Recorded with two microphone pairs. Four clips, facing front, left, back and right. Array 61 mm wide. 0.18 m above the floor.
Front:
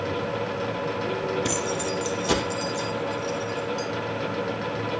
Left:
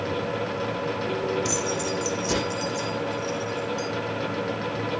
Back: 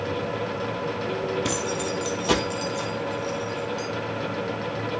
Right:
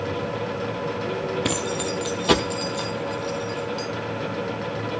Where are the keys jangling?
95° right, 3 m; by 3.9 s 115° right, 4 m.